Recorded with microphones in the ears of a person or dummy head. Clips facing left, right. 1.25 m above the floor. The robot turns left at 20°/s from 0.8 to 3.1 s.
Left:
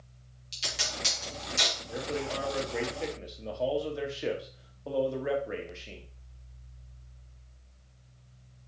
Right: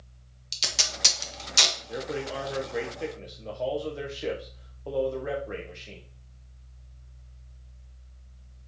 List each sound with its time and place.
0.5 s tape being pulled: 60° right (ahead or behind), 1.2 m; by 1.8 s 80° right, 1.2 m
1.9 s a man speaking: 20° right (ahead or behind), 1.0 m; by 6.1 s centre (ahead or behind), 1.0 m